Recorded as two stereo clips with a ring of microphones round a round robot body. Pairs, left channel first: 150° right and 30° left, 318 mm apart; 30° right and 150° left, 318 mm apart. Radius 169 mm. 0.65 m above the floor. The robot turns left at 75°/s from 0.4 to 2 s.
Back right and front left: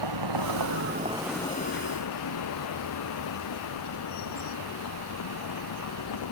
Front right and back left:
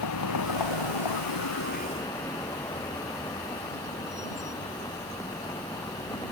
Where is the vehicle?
10° left; by 6.3 s 110° right.